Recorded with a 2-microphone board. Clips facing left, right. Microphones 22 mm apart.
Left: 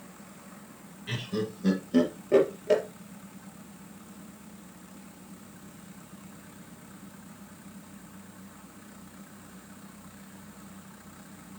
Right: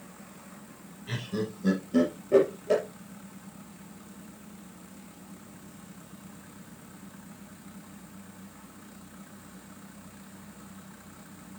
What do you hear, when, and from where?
1.1 s laughter: 25° left (ahead or behind), 3.5 m